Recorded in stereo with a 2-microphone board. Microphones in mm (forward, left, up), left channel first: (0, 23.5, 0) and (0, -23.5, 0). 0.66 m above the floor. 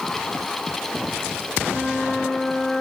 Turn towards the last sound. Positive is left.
turn(degrees=5)  # may be behind; listen again after turning